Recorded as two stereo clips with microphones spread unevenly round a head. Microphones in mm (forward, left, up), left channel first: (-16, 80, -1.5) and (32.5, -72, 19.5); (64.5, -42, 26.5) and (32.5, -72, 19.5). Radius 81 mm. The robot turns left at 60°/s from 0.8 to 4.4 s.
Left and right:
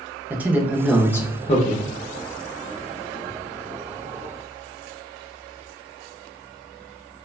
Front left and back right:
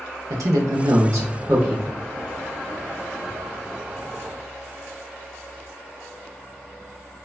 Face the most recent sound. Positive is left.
turn(degrees=-10)